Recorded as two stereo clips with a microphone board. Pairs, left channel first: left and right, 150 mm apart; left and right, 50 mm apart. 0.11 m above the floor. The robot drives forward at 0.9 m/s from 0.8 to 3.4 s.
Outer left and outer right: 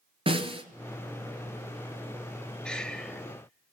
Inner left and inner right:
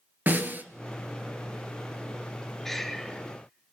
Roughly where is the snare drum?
Right.